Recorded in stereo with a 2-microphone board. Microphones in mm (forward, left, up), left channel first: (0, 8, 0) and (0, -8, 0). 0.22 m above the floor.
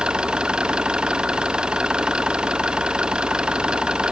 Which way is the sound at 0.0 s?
70° right (ahead or behind).